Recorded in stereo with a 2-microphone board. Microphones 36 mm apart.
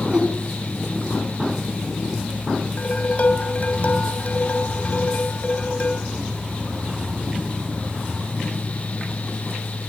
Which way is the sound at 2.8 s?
40° left (ahead or behind).